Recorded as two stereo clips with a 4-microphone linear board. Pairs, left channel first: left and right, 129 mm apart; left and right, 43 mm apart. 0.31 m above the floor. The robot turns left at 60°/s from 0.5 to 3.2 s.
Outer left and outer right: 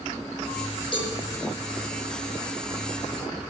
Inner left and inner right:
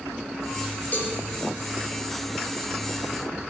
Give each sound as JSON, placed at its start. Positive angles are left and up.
{"t": 0.9, "sound": "a cowbell", "side_deg": 40, "distance_m": 3.5}